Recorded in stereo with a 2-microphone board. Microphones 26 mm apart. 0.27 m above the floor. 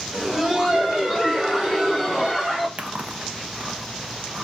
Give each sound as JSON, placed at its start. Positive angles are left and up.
{"t": 0.1, "sound": "laughter", "side_deg": -25, "distance_m": 1.8}
{"t": 2.8, "sound": "chewing", "side_deg": -50, "distance_m": 0.6}